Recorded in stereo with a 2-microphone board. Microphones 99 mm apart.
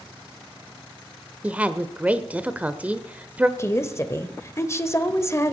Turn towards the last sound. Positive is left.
turn(degrees=30)  # may be behind; listen again after turning